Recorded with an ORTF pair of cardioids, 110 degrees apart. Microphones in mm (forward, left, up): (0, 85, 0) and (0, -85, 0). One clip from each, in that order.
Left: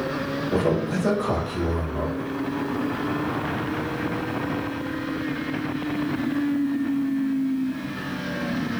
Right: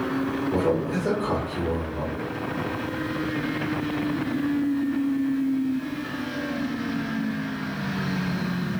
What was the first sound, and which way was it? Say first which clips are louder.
A man speaking: left 1 dB; 55° left.